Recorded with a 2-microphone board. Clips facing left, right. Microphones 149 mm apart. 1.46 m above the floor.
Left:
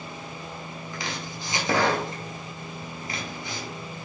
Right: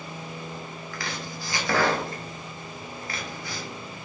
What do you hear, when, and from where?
0.9 s chopping: 20° left (ahead or behind), 0.8 m